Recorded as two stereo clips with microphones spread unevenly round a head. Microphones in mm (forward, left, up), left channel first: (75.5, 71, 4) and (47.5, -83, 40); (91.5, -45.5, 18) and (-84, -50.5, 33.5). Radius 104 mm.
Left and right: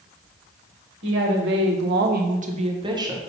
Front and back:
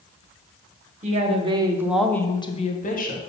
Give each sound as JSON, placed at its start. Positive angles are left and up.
{"t": 1.0, "sound": "a woman speaking", "azimuth_deg": -130, "distance_m": 1.8}